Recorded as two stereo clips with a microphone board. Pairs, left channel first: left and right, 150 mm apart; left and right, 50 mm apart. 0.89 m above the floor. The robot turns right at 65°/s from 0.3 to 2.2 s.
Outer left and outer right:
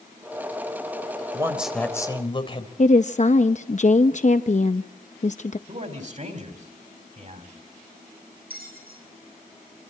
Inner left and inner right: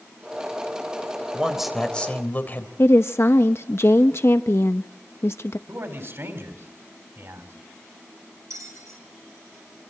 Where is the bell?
85° right, 7.5 m.